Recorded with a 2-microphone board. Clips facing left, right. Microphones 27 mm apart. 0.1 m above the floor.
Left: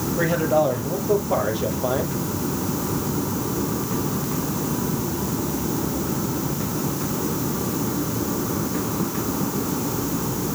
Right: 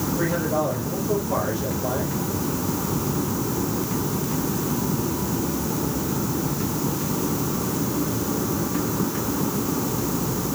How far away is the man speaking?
About 3 m.